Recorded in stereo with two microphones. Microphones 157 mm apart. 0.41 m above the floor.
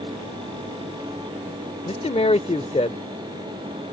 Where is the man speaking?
40° left (ahead or behind).